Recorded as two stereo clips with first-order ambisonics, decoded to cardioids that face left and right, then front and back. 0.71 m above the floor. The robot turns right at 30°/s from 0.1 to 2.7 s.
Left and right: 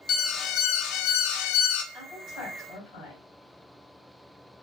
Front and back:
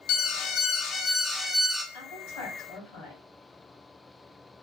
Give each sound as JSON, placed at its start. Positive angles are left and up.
{"t": 0.1, "sound": "an alarm", "azimuth_deg": 30, "distance_m": 0.5}
{"t": 1.9, "sound": "a woman speaking", "azimuth_deg": 0, "distance_m": 3.0}